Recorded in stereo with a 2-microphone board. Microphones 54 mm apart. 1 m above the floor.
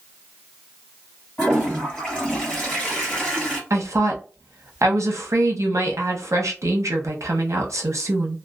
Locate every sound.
1.4 s a toilet flushing: 15° left (ahead or behind), 1.6 m
3.7 s a woman speaking: 70° right (ahead or behind), 0.8 m